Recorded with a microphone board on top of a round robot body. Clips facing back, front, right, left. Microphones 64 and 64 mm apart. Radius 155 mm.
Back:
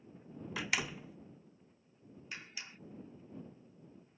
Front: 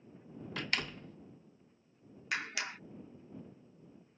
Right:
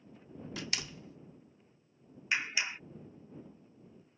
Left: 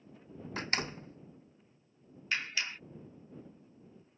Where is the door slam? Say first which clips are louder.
Back 1 dB, left 7 dB; 100° left.